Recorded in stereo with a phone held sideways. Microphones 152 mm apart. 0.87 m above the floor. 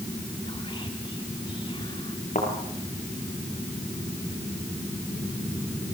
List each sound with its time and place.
0.5 s whispering: 35° left (ahead or behind), 1.8 m
2.4 s a thud: 55° left (ahead or behind), 6.5 m